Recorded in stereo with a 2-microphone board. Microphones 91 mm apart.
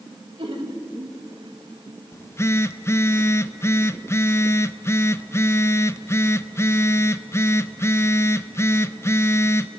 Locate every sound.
0.1 s laughter: 75° right (ahead or behind), 1.9 m; by 1.2 s 60° right (ahead or behind), 2.5 m
2.1 s a phone buzzing: 30° left (ahead or behind), 0.5 m